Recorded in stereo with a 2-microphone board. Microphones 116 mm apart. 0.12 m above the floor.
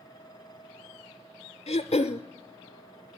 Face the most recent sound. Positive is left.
turn(degrees=65)  # may be behind; listen again after turning